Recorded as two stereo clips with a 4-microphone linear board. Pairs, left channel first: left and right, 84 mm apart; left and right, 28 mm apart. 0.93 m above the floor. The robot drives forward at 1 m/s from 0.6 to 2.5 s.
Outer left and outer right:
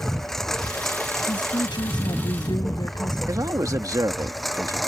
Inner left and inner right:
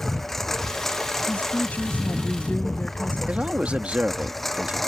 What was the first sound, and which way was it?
A lawn mower, 5° left (ahead or behind).